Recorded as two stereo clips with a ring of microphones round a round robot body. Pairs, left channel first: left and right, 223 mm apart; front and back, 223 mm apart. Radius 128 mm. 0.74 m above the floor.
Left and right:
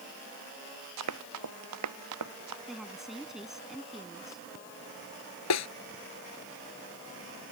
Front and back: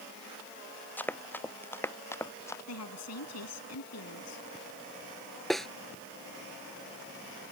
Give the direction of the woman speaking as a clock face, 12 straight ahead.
12 o'clock.